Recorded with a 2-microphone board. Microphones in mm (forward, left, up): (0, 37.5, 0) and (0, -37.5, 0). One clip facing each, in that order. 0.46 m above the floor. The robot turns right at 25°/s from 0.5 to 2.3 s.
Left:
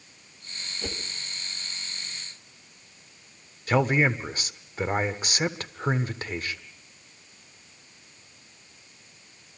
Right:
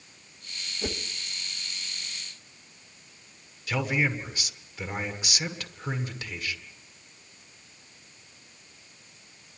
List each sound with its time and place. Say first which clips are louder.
0.8 s a whoosh: right 3 dB; 10° right (ahead or behind), 1.0 m; by 1.0 s 5° right (ahead or behind), 1.0 m
3.7 s a man speaking: left 5 dB; 40° left (ahead or behind), 1.4 m